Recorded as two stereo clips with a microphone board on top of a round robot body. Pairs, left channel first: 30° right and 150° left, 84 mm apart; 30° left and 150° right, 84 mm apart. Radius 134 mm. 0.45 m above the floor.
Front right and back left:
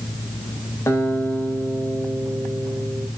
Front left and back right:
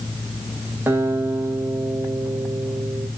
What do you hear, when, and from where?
0.9 s a guitar: 90° right, 3.5 m